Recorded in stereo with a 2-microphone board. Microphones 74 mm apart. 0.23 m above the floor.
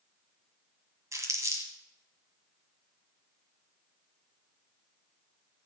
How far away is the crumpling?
About 1.7 m.